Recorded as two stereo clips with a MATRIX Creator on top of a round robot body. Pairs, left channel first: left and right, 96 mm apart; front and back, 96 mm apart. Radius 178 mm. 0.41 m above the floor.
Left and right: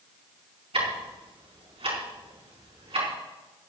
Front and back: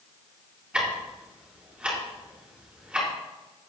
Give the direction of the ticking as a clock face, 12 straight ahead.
3 o'clock.